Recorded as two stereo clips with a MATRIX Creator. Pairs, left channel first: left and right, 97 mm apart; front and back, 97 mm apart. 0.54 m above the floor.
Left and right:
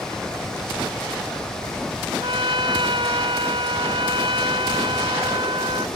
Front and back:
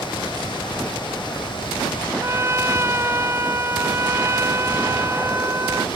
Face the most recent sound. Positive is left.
turn(degrees=-120)